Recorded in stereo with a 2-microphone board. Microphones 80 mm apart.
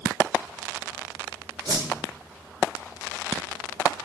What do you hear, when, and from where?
1.6 s a whoosh: 65° right (ahead or behind), 0.6 m